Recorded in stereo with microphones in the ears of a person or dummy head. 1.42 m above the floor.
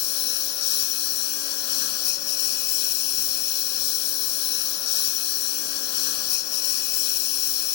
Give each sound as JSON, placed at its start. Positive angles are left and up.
{"t": 0.0, "sound": "a lawn mower", "side_deg": 60}